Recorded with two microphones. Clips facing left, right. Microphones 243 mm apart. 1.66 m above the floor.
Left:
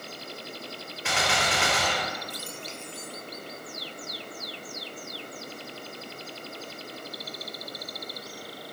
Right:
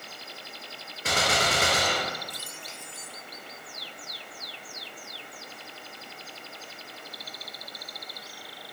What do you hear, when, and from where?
1.1 s a gunshot: 40° right (ahead or behind), 0.6 m